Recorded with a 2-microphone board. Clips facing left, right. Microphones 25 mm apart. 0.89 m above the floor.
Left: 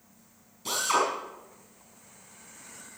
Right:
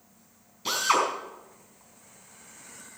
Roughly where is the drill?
Right.